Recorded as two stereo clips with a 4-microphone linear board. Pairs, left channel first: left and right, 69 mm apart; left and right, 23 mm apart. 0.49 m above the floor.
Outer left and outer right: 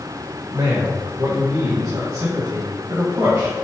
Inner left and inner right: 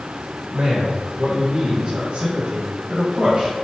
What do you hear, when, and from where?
0.5 s a man speaking: 55° right (ahead or behind), 1.9 m; by 3.5 s 50° right (ahead or behind), 3.5 m